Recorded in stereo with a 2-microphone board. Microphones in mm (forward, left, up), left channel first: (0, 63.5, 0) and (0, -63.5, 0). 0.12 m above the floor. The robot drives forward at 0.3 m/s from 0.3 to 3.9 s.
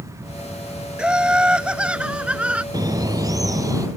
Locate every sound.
1.0 s laughter: 5° right (ahead or behind); by 2.6 s 10° right (ahead or behind)
2.7 s a bird: 30° right (ahead or behind); by 3.9 s 25° right (ahead or behind)